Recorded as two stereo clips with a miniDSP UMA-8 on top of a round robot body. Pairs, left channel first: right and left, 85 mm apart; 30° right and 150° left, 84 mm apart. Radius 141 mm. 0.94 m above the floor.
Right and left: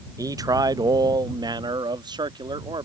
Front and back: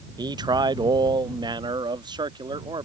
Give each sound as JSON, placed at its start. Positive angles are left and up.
{"t": 0.2, "sound": "a man speaking", "azimuth_deg": 130}